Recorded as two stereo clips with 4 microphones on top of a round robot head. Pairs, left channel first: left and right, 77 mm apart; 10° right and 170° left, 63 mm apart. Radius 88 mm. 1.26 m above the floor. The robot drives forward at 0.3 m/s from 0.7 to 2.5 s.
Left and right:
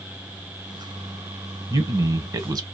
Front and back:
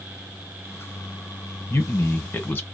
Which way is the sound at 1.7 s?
50° right.